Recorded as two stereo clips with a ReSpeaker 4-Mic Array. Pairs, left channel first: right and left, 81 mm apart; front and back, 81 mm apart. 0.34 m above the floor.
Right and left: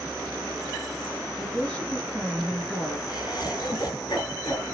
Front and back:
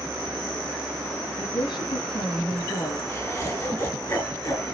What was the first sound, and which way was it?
A woman speaking, 10° right.